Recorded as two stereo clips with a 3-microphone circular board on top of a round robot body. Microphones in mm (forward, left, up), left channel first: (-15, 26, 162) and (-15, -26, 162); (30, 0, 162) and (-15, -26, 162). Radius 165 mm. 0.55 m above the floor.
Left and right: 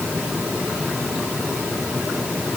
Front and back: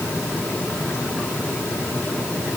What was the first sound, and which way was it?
Only background noise.